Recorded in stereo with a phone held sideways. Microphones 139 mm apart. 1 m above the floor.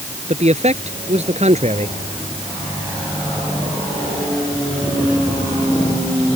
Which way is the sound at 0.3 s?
50° right (ahead or behind).